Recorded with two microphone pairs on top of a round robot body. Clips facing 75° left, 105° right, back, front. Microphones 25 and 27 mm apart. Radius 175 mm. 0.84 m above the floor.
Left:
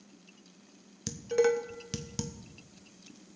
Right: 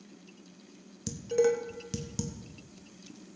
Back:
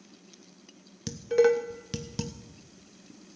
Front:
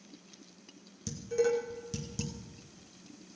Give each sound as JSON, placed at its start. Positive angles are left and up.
{"t": 1.1, "sound": "dishes clattering", "azimuth_deg": 140, "distance_m": 0.9}